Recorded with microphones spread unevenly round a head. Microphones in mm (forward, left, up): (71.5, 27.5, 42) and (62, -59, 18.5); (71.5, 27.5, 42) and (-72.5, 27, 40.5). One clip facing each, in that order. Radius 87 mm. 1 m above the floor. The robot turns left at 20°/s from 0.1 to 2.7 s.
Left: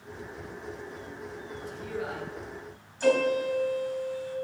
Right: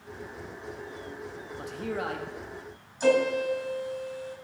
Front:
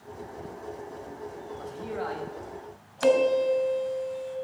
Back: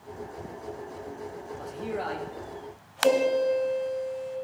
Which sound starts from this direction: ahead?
A piano, at 3.0 s.